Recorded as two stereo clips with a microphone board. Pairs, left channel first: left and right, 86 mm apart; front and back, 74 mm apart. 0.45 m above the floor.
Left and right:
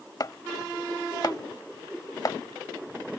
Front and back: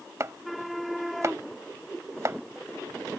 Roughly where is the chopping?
Behind left.